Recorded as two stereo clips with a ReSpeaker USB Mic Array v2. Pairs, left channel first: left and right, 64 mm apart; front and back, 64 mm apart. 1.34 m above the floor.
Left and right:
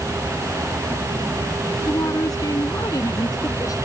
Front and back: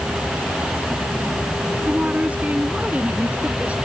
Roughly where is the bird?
No bird in this recording.